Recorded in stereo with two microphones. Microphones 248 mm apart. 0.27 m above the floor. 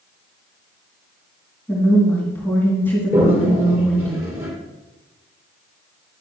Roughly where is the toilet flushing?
Centre.